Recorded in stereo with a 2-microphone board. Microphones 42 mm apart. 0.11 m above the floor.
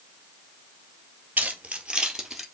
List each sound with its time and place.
1.4 s keys jangling: 40° right (ahead or behind), 1.6 m; by 2.5 s 5° right (ahead or behind), 2 m